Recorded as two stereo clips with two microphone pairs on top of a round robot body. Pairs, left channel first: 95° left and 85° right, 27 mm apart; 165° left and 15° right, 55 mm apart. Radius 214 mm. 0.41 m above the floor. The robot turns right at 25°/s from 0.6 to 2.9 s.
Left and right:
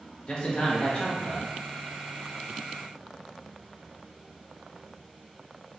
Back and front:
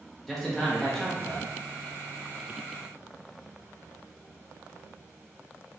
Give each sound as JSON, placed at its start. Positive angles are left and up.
{"t": 0.3, "sound": "a man speaking", "azimuth_deg": 75, "distance_m": 1.1}